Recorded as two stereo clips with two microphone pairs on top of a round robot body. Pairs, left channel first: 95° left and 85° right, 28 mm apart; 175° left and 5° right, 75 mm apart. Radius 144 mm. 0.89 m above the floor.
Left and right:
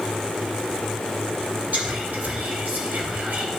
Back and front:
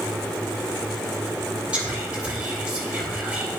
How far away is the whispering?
About 3 m.